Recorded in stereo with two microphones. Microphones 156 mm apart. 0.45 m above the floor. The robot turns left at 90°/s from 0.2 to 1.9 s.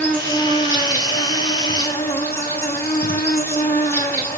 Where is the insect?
170° left, 5 m; by 4.4 s 15° left, 5 m.